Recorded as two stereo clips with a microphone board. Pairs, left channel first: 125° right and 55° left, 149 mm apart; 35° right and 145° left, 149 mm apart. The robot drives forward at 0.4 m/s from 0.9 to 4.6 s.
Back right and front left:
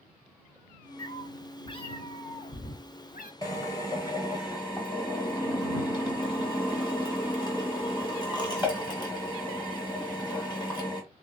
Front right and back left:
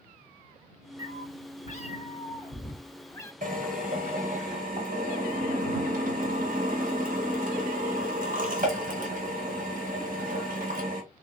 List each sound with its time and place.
1.0 s a cat meowing: 55° right, 1.1 m; by 3.3 s 110° right, 0.9 m
3.4 s a drill: 170° left, 1.4 m; by 11.0 s 175° left, 1.9 m